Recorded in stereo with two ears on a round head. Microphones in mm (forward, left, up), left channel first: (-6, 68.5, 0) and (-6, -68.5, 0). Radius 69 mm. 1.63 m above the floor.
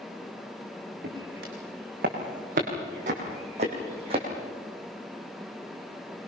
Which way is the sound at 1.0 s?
65° right (ahead or behind).